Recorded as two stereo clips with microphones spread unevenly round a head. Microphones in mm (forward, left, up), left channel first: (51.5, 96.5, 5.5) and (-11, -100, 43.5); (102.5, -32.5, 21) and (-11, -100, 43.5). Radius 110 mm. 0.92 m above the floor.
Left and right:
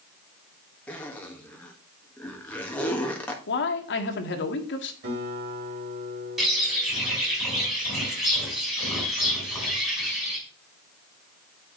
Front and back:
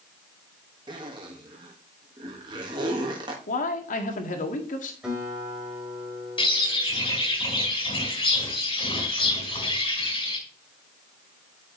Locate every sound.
0.9 s a zipper: 150° left, 1.4 m
3.5 s a man speaking: 45° left, 1.7 m
5.0 s a guitar: 65° right, 4.5 m
6.4 s a bird: 20° right, 5 m